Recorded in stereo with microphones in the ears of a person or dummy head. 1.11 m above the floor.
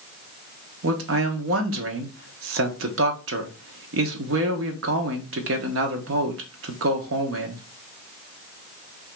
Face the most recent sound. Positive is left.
turn(degrees=-70)  # may be behind; listen again after turning